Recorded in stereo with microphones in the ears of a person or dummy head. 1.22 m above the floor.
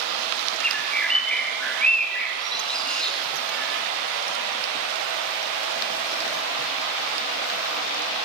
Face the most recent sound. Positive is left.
turn(degrees=0)  # may be behind; listen again after turning